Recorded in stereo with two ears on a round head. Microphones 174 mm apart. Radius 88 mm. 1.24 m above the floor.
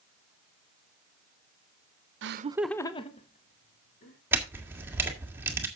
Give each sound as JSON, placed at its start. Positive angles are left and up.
{"t": 2.2, "sound": "laughter", "side_deg": -65, "distance_m": 0.6}
{"t": 4.3, "sound": "a camera shutter", "side_deg": -10, "distance_m": 1.7}